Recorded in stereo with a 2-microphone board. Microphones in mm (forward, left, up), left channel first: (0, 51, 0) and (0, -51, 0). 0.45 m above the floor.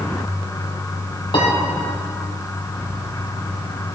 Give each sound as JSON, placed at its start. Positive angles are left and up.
{"t": 1.3, "sound": "a piano", "side_deg": 55, "distance_m": 3.0}